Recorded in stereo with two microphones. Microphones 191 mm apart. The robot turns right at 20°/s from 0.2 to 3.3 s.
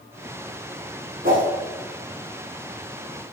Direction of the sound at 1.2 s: 50° right (ahead or behind).